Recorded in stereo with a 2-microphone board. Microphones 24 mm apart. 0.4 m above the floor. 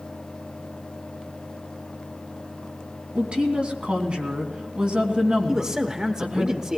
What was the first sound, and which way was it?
A woman speaking, 45° right (ahead or behind).